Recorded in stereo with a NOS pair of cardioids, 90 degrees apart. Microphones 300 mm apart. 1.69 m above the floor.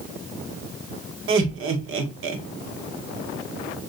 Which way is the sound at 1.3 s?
45° right.